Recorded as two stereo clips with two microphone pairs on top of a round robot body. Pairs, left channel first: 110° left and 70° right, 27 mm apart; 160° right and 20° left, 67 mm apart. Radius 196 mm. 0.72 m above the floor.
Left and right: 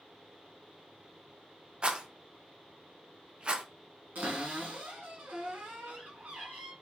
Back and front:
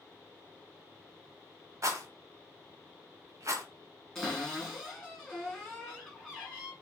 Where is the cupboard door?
70° right, 1.6 m.